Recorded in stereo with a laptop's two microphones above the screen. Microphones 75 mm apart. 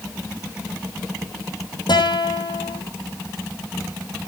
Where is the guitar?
75° left (ahead or behind), 4 m.